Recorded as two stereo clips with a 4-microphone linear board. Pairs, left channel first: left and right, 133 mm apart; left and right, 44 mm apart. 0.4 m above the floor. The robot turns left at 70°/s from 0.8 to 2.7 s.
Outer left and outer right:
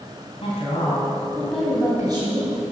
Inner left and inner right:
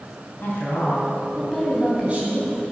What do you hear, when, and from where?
0.4 s a woman speaking: 55° left, 2.5 m; by 2.6 s 70° right, 2.5 m